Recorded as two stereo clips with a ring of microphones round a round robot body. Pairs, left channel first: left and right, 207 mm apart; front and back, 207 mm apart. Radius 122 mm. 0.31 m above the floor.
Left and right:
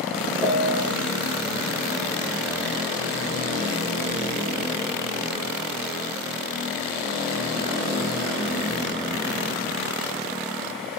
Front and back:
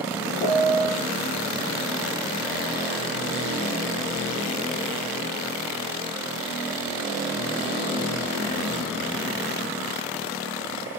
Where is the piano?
30° left, 2 m.